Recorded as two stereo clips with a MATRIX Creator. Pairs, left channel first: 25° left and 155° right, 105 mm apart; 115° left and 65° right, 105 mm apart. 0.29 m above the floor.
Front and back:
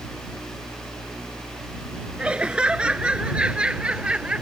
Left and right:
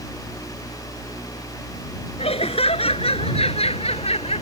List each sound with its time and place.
2.2 s laughter: 125° left